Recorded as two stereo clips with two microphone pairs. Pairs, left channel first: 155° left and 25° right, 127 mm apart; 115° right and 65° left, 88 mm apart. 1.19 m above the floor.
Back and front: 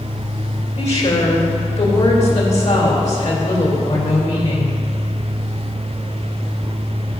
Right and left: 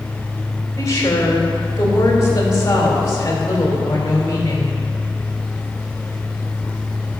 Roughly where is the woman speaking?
Behind.